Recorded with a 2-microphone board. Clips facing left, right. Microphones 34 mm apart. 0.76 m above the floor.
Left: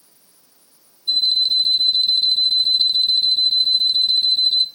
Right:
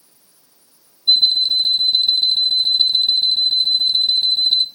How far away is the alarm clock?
About 1.4 m.